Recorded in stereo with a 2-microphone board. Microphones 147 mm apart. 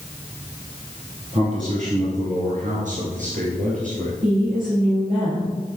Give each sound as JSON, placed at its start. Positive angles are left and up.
{"t": 1.3, "sound": "a man speaking", "side_deg": -55, "distance_m": 2.0}
{"t": 4.2, "sound": "a woman speaking", "side_deg": -70, "distance_m": 3.0}